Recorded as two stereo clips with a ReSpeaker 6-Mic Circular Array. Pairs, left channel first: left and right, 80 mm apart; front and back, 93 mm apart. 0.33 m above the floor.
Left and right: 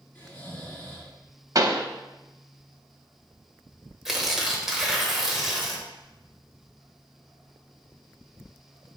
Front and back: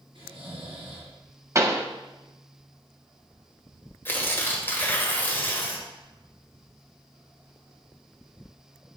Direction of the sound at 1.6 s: 125° right.